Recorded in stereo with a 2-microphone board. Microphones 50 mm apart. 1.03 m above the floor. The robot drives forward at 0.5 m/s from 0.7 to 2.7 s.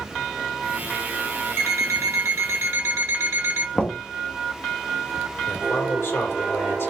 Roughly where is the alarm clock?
Right.